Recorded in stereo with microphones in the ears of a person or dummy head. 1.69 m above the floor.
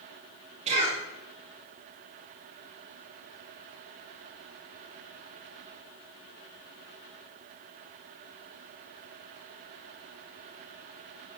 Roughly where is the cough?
Right.